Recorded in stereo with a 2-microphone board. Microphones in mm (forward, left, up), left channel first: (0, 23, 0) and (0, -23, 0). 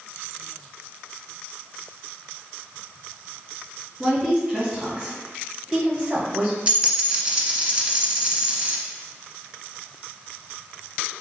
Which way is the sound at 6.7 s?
20° right (ahead or behind).